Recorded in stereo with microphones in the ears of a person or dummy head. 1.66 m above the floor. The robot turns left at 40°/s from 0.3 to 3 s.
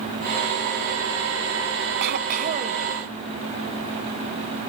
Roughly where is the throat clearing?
Behind right.